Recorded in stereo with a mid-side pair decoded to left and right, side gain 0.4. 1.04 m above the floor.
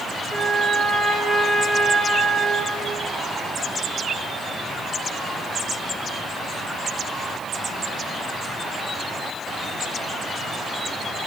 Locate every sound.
0.3 s a trumpet: 30° right, 3.5 m